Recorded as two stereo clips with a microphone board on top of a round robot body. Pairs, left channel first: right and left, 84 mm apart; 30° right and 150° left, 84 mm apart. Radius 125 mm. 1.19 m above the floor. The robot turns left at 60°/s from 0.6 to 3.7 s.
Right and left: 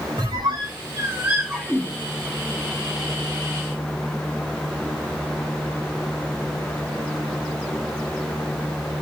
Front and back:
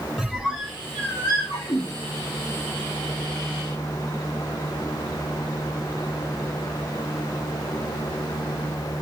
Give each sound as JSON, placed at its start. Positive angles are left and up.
{"t": 0.2, "sound": "a squeak", "azimuth_deg": 60, "distance_m": 0.5}